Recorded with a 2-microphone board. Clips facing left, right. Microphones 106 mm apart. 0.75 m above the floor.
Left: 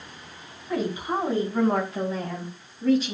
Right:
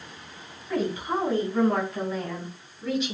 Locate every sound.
0.7 s a woman speaking: 20° left (ahead or behind), 5.5 m; by 3.1 s 40° left (ahead or behind), 4.5 m